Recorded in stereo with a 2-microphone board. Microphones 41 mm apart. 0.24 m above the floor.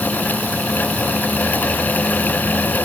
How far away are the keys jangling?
No keys jangling in this recording.